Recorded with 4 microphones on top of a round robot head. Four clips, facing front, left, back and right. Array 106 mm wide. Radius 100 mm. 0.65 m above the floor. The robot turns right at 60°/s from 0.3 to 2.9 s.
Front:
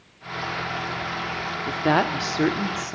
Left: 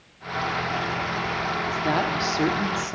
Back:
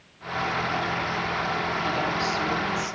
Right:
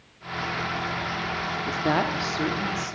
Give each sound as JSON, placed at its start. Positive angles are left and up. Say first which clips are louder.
{"t": 1.7, "sound": "a woman speaking", "louder": "right 1 dB, front 5 dB", "azimuth_deg": -30, "distance_m": 2.0}